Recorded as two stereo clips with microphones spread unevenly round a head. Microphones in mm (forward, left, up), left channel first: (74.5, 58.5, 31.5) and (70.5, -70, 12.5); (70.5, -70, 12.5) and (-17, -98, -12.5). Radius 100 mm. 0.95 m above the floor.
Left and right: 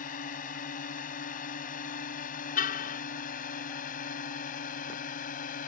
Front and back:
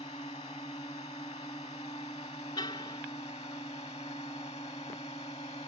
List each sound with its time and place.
0.0 s a drone: 80° left
2.6 s a car horn: 85° left